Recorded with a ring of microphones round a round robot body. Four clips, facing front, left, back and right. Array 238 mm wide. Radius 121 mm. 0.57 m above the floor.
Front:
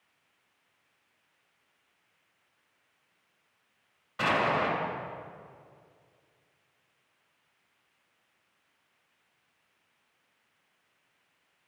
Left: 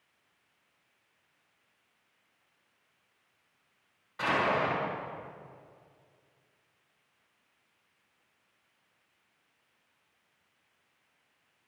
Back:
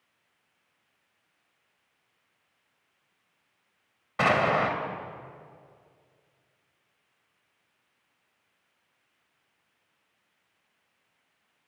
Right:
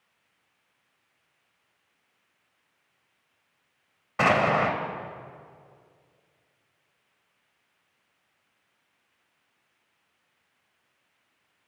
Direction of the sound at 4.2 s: 130° right.